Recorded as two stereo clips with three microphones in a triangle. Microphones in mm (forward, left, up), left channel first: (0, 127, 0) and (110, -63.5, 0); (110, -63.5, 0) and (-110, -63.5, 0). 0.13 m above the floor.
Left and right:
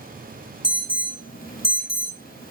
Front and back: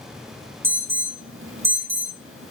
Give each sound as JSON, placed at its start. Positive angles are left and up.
{"t": 0.6, "sound": "an alarm", "azimuth_deg": 165, "distance_m": 3.0}